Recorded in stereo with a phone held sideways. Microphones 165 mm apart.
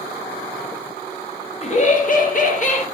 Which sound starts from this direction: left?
Laughter, at 1.6 s.